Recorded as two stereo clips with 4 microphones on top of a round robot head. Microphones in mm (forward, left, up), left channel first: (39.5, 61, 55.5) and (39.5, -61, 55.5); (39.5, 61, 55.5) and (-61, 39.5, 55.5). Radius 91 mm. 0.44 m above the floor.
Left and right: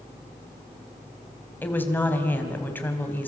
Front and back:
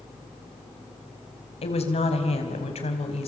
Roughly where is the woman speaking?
Ahead.